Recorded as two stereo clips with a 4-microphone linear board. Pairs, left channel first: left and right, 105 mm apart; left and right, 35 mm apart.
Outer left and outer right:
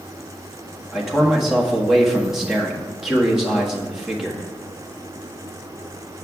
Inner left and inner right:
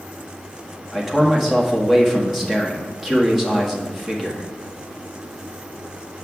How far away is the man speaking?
About 1.5 m.